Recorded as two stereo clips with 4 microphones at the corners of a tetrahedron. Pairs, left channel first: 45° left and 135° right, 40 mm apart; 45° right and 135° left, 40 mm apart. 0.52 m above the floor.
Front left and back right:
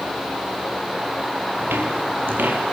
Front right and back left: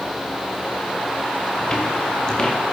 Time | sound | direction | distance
1.6 | footsteps | 115° right | 4.5 m